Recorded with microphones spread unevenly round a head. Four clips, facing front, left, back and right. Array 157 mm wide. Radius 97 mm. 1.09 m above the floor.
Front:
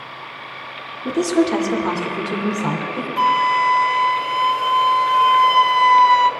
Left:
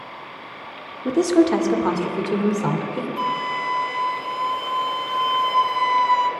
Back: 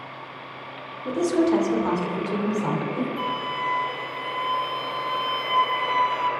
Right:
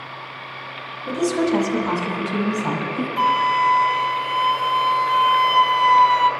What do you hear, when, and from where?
1.1 s a woman speaking: 40° left, 2.5 m; by 3.1 s 60° left, 3.5 m
3.2 s a flute: 20° right, 1.4 m